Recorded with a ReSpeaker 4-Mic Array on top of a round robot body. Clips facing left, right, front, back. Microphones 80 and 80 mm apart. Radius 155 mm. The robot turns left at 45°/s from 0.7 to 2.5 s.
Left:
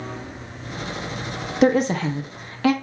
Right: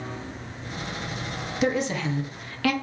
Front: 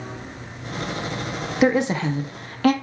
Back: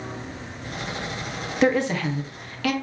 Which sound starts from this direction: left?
A woman speaking, at 1.6 s.